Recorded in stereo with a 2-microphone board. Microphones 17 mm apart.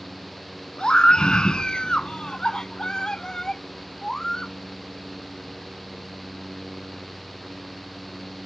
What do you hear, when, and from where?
0.8 s a scream: 70° left (ahead or behind); by 4.5 s 40° left (ahead or behind)